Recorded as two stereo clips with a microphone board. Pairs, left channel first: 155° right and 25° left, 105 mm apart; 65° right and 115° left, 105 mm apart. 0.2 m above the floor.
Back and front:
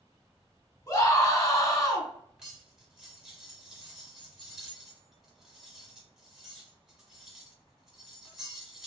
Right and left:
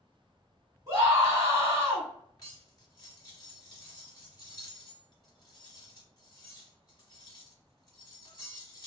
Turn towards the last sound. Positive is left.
turn(degrees=-60)